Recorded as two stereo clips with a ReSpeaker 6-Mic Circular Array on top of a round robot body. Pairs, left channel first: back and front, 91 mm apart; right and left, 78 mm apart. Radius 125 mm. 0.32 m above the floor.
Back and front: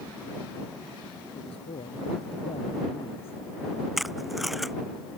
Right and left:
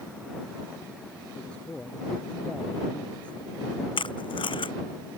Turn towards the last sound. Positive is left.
turn(degrees=-90)